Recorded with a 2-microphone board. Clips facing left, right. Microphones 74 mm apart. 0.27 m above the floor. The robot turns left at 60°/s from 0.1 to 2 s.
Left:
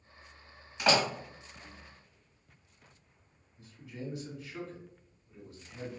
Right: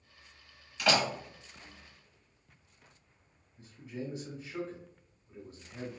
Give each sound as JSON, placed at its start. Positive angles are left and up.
{"t": 0.8, "sound": "a door slam", "side_deg": 25, "distance_m": 1.0}
{"t": 3.6, "sound": "a man speaking", "side_deg": -35, "distance_m": 1.3}